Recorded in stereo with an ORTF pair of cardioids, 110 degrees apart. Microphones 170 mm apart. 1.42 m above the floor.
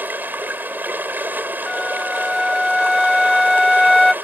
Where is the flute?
Straight ahead.